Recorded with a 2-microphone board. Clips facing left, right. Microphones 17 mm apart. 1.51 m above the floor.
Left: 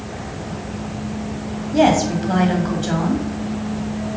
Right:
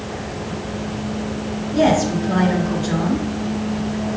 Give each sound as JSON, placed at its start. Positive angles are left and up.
{"t": 1.7, "sound": "a woman speaking", "side_deg": 50, "distance_m": 3.0}